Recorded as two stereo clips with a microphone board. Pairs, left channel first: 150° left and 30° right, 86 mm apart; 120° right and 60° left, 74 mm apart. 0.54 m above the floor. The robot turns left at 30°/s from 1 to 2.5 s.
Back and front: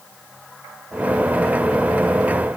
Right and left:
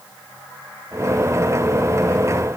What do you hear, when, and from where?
Only background noise.